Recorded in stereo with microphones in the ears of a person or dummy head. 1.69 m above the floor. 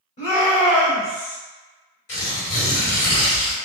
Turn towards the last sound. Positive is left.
turn(degrees=40)  # may be behind; listen again after turning